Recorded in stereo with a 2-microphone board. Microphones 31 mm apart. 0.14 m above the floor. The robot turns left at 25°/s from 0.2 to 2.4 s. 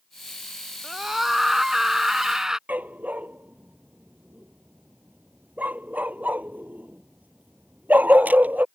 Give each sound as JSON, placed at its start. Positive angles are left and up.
{"t": 0.8, "sound": "a scream", "side_deg": -10}
{"t": 2.7, "sound": "a dog barking", "side_deg": -70}